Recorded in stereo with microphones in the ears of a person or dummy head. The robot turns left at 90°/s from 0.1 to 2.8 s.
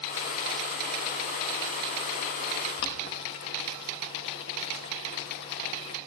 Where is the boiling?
60° left (ahead or behind), 3 m.